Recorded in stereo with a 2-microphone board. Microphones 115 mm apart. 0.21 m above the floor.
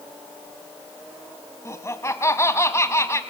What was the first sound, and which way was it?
Laughter, 25° left (ahead or behind).